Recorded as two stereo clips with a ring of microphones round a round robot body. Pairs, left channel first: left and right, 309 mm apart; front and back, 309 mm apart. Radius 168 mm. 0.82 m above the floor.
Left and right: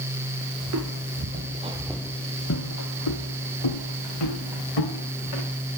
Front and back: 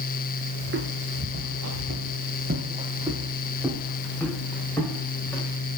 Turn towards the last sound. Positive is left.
turn(degrees=85)